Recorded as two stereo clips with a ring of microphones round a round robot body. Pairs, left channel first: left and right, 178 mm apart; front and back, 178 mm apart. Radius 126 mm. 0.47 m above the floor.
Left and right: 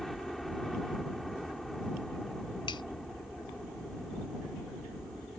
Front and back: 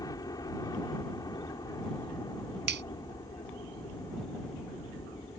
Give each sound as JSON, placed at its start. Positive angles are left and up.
{"t": 0.0, "sound": "a helicopter", "azimuth_deg": 0}
{"t": 2.7, "sound": "a finger snap", "azimuth_deg": 160}